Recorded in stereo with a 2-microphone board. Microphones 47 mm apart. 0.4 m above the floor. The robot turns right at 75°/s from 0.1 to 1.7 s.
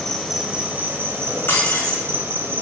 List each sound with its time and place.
0.0 s an insect: 170° left, 1.0 m; by 2.6 s 70° right, 1.0 m
1.5 s breaking glass: 40° left (ahead or behind), 2.5 m; by 2.0 s 25° left (ahead or behind), 2.5 m